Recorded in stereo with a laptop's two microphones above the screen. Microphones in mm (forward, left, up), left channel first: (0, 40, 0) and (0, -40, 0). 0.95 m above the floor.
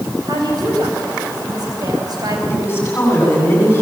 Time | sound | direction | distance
0.3 | a woman speaking | 55° right (ahead or behind) | 4.5 m
2.5 | a woman speaking | 25° left (ahead or behind) | 9 m